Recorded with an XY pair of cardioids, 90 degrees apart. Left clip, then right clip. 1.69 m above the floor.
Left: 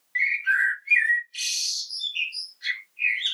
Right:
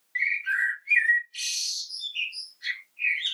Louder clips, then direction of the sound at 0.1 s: Left 3 dB; 15° left.